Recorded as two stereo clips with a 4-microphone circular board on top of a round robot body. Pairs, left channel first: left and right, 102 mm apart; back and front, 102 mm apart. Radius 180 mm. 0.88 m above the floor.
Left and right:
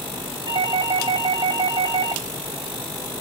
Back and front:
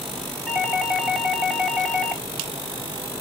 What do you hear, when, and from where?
0.5 s a doorbell: 90° right, 1.0 m